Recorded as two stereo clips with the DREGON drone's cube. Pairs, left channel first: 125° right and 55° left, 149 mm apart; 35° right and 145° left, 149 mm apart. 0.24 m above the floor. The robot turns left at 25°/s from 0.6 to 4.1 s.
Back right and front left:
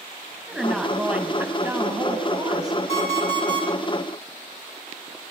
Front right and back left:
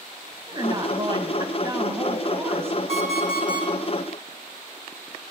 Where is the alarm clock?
170° right, 5 m; by 3.7 s 170° left, 5 m.